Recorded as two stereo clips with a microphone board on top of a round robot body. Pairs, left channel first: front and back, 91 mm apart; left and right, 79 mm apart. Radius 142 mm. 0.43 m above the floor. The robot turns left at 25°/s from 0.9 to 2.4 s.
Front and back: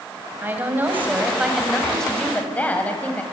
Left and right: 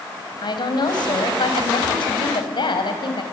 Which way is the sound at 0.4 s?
110° left.